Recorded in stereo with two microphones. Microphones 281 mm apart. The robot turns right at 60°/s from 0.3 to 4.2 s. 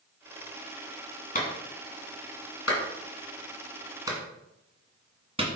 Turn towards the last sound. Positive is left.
turn(degrees=-20)  # may be behind; listen again after turning